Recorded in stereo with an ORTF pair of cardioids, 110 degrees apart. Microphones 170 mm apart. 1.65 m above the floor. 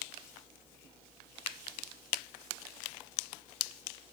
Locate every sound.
Only background noise.